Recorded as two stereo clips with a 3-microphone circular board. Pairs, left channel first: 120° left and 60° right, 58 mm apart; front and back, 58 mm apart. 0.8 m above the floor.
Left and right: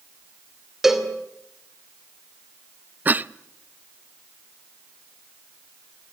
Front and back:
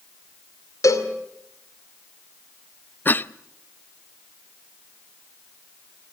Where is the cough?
25° right, 0.5 m.